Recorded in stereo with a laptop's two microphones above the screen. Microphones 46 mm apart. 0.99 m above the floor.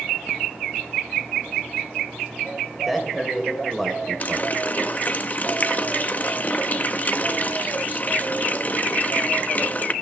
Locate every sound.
2.7 s a man speaking: centre (ahead or behind), 4 m
4.2 s a running tap: 40° left (ahead or behind), 0.5 m